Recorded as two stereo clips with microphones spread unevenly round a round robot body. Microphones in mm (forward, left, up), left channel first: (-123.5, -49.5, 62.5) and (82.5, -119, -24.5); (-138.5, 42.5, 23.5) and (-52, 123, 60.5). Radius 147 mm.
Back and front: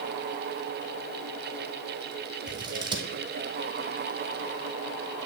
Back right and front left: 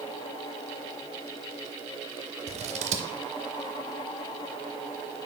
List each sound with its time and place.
2.5 s scissors: 20° left, 0.6 m